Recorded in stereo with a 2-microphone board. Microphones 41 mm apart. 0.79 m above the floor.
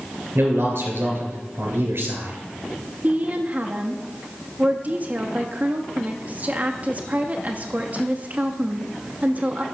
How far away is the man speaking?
About 3.5 m.